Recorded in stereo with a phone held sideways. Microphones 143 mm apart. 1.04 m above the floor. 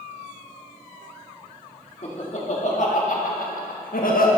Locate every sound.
2.0 s laughter: 50° left (ahead or behind), 1.9 m; by 4.3 s 80° left, 1.3 m